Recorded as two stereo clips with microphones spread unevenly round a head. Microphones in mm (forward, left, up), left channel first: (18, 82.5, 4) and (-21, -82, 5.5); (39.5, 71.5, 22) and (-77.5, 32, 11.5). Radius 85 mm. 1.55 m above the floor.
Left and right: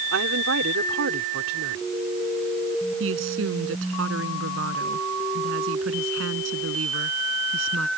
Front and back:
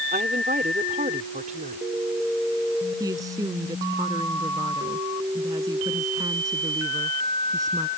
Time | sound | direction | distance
0.1 | a woman speaking | 110° right | ?
3.0 | a woman speaking | 90° right | ?